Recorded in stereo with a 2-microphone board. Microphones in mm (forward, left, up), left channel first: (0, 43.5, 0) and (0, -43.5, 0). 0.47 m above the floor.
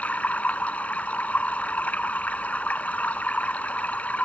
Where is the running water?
15° left (ahead or behind).